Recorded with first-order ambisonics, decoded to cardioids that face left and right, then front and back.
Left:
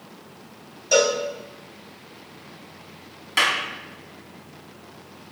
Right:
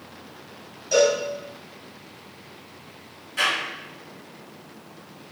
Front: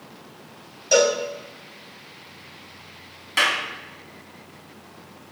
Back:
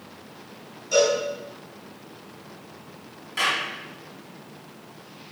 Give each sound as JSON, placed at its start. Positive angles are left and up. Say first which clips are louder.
{"t": 0.9, "sound": "a cowbell", "louder": "even, front 2 dB", "azimuth_deg": 20, "distance_m": 1.9}
{"t": 3.4, "sound": "a clap", "louder": "left 3 dB, front 3 dB", "azimuth_deg": 50, "distance_m": 2.0}